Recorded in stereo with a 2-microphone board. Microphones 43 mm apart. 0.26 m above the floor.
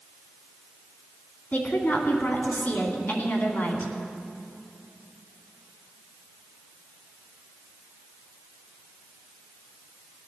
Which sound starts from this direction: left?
A woman speaking, at 1.5 s.